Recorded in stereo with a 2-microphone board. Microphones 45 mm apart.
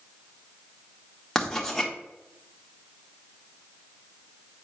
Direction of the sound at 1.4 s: 10° left (ahead or behind).